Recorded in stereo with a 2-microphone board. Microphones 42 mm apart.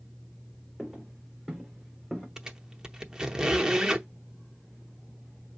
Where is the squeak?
15° right (ahead or behind), 0.7 m.